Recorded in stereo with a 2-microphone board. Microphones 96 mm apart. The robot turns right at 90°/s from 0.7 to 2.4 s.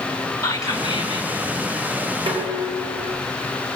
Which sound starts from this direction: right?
Dishes clattering, at 2.3 s.